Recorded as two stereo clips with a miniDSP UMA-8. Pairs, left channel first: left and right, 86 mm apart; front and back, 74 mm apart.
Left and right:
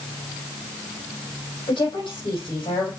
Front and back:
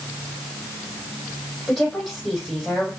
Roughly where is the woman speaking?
Left.